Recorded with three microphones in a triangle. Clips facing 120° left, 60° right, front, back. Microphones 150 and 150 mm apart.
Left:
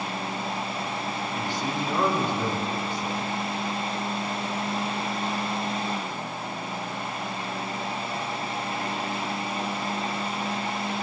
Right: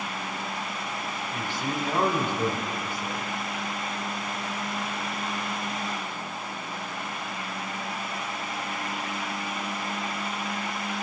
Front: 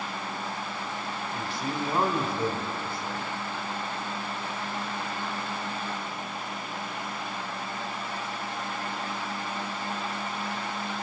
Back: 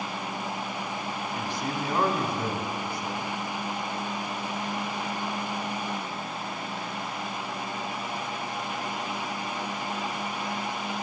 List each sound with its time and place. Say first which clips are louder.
1.3 s a man speaking: even, even; 50° right, 1.1 m